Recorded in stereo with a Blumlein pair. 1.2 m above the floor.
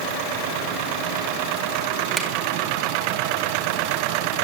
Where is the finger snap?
15° right, 3 m.